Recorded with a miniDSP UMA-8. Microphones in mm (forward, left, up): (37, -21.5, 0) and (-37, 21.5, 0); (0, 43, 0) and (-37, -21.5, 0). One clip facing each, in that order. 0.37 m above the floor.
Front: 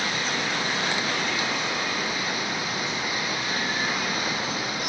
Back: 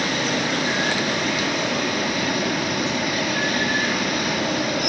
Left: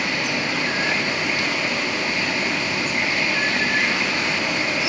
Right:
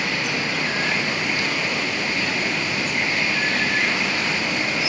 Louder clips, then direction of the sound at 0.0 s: Back 5 dB, left 1 dB; 150° left.